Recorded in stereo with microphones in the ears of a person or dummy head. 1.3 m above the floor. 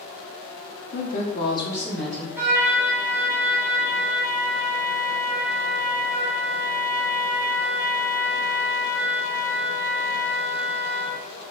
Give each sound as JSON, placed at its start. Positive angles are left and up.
{"t": 0.9, "sound": "a woman speaking", "side_deg": 50, "distance_m": 0.6}
{"t": 2.4, "sound": "a trumpet", "side_deg": -15, "distance_m": 0.7}